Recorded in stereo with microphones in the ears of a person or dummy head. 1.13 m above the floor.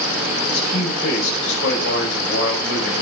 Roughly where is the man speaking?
Left.